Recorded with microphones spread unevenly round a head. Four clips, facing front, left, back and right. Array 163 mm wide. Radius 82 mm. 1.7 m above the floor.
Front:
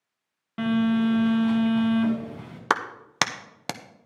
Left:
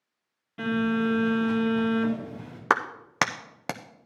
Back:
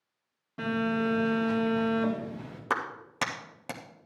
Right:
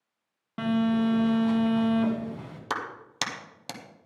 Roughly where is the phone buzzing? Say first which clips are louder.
Right 1 dB, front 6 dB; ahead right.